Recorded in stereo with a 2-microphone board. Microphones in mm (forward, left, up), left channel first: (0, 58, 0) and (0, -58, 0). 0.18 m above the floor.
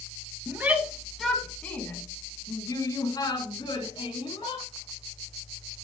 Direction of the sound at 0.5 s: 15° right (ahead or behind).